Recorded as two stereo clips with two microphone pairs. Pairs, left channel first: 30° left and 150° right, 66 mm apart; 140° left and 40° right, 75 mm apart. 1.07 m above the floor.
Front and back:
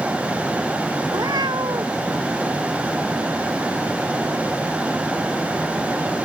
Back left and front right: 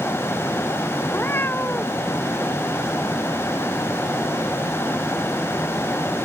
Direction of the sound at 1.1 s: 160° right.